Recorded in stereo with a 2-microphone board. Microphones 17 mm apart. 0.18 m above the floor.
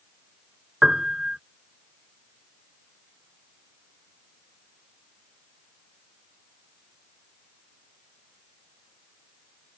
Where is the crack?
I don't hear a crack.